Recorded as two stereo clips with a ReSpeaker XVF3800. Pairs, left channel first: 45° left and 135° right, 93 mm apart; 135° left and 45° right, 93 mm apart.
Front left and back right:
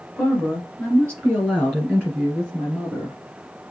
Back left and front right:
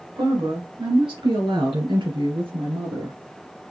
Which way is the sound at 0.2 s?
30° right.